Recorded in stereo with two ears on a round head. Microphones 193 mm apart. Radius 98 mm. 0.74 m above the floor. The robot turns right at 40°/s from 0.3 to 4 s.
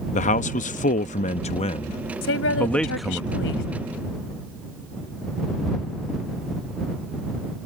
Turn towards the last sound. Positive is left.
turn(degrees=130)